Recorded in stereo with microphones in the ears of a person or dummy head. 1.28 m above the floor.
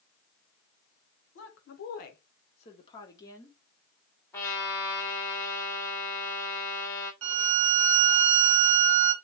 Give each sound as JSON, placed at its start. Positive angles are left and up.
{"t": 1.4, "sound": "a woman speaking", "side_deg": 65, "distance_m": 1.0}
{"t": 4.3, "sound": "a trumpet", "side_deg": 15, "distance_m": 1.5}
{"t": 7.2, "sound": "a violin", "side_deg": -70, "distance_m": 0.9}